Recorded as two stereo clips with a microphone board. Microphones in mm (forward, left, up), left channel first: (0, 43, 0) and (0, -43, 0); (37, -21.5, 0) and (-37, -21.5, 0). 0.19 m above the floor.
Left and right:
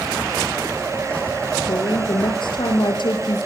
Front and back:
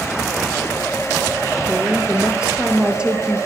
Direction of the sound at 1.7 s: 105° left.